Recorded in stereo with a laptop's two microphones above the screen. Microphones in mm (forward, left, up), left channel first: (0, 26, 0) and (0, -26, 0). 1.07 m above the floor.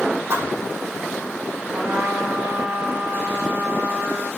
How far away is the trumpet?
About 8 m.